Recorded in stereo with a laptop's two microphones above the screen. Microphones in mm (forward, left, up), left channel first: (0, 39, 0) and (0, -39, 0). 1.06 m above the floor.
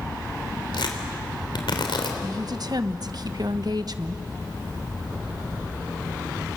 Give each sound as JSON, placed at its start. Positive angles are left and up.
{"t": 0.7, "sound": "tearing paper", "side_deg": 80, "distance_m": 3.5}
{"t": 2.2, "sound": "a woman speaking", "side_deg": -60, "distance_m": 1.0}